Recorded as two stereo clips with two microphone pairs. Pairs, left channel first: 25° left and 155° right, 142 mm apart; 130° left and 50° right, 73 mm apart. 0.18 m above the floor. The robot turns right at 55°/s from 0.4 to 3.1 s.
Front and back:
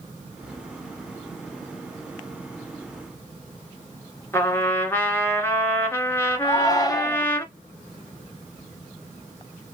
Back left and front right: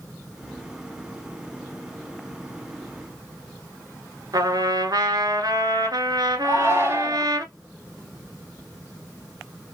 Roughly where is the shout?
Ahead.